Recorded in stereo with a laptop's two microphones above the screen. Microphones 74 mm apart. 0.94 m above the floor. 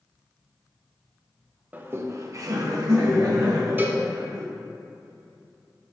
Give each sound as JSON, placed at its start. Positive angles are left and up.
{"t": 1.7, "sound": "laughter", "side_deg": -20, "distance_m": 0.6}
{"t": 3.8, "sound": "a cowbell", "side_deg": -25, "distance_m": 0.6}